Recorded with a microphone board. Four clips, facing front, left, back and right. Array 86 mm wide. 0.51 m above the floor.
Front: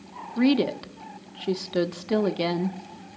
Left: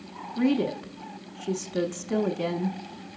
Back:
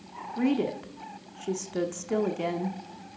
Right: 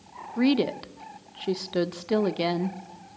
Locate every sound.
0.4 s a woman speaking: 45° right, 0.7 m